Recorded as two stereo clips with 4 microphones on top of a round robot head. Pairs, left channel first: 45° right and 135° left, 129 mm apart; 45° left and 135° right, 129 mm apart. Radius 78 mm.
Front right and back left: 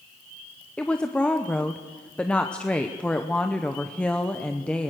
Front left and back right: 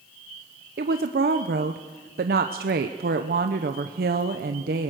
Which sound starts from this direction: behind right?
A woman speaking, at 0.8 s.